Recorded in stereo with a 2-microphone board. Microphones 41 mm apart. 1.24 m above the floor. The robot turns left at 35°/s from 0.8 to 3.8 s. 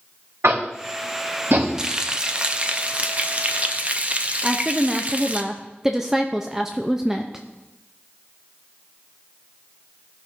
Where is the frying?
25° right, 0.6 m; by 5.4 s 95° right, 0.6 m.